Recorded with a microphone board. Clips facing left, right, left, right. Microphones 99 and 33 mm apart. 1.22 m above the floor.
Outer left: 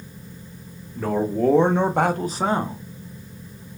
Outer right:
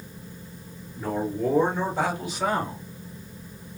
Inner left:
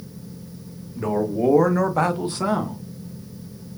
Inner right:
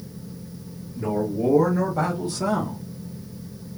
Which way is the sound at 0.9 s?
85° left.